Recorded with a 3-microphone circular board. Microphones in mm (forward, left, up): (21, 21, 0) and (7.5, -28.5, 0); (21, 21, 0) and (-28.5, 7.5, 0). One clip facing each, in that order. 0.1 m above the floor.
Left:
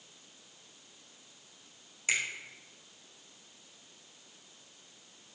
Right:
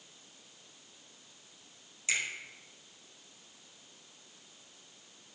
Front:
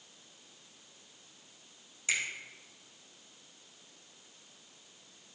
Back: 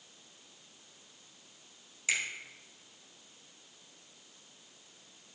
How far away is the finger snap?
About 2.5 m.